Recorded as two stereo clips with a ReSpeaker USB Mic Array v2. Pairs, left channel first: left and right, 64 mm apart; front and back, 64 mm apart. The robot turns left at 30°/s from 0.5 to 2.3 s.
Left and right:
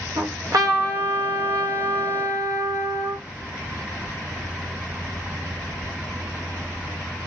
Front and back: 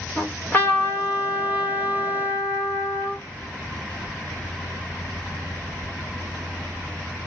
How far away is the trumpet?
About 1.0 m.